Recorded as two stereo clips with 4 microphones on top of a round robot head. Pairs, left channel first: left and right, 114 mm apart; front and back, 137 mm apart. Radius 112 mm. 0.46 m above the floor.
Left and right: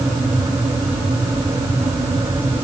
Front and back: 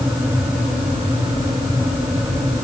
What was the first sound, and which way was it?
Only background noise.